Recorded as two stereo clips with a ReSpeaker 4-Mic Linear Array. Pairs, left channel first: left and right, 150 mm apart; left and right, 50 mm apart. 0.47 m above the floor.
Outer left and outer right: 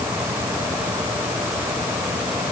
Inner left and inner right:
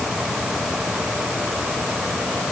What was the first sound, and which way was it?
Only background noise.